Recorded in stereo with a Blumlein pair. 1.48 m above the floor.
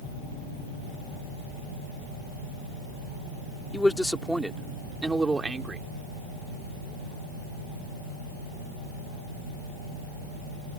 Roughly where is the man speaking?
Ahead.